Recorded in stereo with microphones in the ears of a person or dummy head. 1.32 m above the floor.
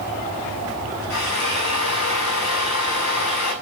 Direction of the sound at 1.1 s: 70° left (ahead or behind).